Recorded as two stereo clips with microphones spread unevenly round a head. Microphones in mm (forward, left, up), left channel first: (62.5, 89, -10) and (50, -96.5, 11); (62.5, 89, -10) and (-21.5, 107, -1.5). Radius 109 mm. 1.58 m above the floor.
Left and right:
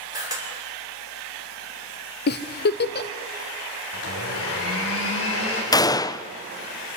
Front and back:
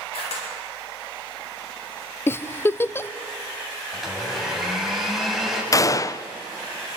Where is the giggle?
55° left, 0.7 m.